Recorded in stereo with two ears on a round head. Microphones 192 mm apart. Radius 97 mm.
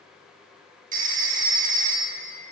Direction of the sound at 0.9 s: 35° right (ahead or behind).